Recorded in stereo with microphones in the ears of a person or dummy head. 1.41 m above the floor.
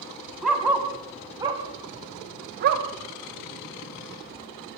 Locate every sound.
0.4 s a dog barking: 5° right (ahead or behind), 3 m; by 2.9 s 55° right (ahead or behind), 2.5 m